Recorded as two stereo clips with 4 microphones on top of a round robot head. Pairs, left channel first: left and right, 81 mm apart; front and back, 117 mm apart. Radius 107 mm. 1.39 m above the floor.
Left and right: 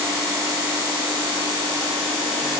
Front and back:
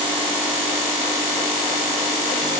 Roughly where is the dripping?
I don't hear dripping.